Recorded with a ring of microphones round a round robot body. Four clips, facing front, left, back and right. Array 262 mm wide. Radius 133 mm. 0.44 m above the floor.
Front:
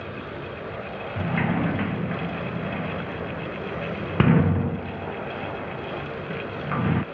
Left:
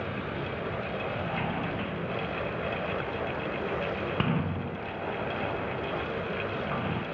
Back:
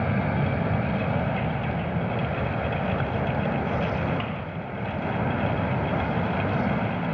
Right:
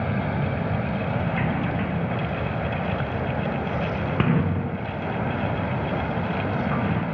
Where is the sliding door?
20° right.